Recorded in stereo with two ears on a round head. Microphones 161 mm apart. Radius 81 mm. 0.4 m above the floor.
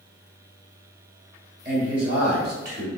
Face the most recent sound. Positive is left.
turn(degrees=-55)  # may be behind; listen again after turning